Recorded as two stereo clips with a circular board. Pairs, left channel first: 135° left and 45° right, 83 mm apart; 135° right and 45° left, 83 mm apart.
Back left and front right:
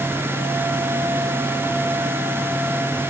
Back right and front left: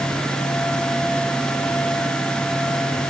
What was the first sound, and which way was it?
Only background noise.